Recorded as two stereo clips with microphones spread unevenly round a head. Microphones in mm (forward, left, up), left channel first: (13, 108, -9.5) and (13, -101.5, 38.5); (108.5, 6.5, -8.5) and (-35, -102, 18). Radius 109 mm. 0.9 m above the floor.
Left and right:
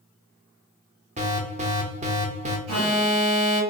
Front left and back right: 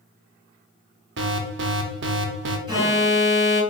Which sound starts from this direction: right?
An alarm, at 2.7 s.